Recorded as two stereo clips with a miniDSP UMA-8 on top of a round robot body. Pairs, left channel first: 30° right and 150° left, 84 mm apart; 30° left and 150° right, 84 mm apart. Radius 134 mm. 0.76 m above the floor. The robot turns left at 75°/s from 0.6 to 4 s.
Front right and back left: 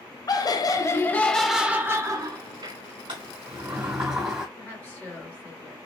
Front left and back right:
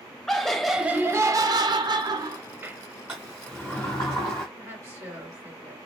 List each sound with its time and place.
0.3 s laughter: 55° right, 0.6 m; by 2.8 s 145° left, 0.6 m
3.1 s a sliding door: 145° left, 0.6 m; by 4.5 s 75° left, 0.6 m
4.5 s a woman speaking: 100° right, 2 m